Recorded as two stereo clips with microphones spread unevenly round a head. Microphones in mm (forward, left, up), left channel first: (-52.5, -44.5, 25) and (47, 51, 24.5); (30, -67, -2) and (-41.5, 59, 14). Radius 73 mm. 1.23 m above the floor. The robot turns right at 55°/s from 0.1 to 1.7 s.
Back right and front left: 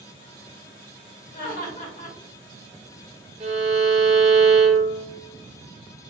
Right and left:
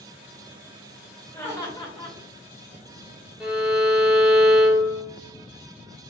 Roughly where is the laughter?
Behind right.